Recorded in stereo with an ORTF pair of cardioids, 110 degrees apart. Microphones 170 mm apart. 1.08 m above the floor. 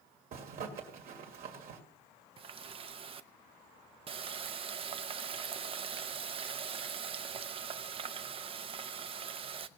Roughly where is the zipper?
Ahead right.